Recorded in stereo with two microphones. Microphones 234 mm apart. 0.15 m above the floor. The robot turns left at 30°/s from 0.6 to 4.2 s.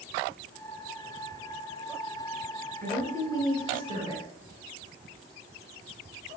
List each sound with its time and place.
2.8 s a woman speaking: 10° left (ahead or behind), 1.7 m; by 4.2 s 25° left (ahead or behind), 1.7 m